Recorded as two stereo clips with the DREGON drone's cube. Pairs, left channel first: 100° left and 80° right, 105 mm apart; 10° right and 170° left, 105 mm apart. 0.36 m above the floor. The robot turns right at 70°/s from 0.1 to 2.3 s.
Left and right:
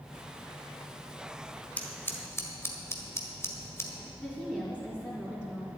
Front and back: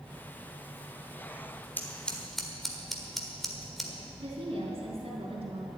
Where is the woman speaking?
160° right, 3.5 m.